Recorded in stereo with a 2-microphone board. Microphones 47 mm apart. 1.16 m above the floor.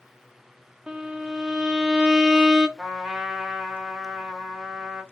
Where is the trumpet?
5° right (ahead or behind), 0.8 m.